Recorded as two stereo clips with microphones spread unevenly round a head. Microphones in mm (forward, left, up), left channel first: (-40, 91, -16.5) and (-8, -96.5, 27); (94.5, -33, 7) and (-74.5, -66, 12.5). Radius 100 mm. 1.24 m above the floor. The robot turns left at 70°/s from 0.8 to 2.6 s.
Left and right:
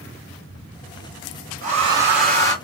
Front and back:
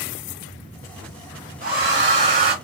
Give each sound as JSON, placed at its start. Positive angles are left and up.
{"t": 1.6, "sound": "a hair dryer", "azimuth_deg": -130, "distance_m": 2.0}